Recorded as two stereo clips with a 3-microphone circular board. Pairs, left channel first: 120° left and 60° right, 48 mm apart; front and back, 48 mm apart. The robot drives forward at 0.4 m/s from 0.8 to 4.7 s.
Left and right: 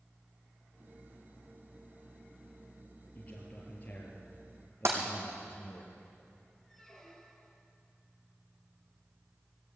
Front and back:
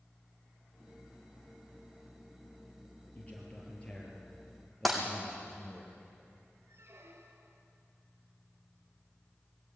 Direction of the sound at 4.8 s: 85° right.